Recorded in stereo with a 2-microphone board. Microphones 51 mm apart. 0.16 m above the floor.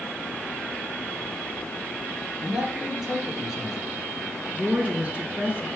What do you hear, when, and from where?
2.4 s a man speaking: 10° right (ahead or behind), 2.5 m
4.5 s a woman speaking: 25° right (ahead or behind), 1.9 m